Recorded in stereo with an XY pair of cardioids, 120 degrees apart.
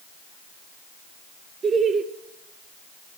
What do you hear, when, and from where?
1.6 s laughter: 40° right, 2 m